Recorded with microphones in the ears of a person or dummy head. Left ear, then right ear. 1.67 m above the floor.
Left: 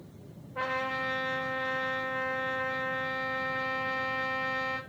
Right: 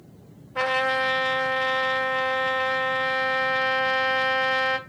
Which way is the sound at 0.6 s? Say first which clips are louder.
Right 9 dB; 65° right (ahead or behind).